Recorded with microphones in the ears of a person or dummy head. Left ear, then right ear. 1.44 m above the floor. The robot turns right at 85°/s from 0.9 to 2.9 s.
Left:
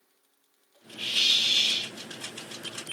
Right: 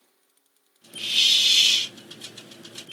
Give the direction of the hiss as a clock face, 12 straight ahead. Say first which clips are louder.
Right 4 dB; 7 o'clock.